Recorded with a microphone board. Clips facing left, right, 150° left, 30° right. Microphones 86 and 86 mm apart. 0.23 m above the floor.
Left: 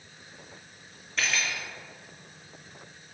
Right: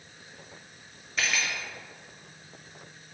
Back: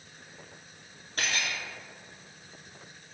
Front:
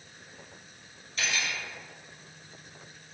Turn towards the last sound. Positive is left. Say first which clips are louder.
# even, even
turn(degrees=180)